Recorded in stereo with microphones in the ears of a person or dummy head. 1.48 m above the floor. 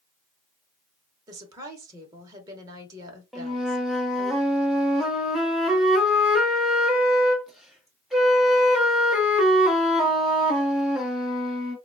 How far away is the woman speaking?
About 0.8 m.